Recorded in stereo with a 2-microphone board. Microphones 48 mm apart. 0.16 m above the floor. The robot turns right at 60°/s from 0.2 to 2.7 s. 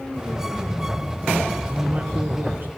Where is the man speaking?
145° right, 1.6 m; by 2.7 s 85° right, 1.6 m.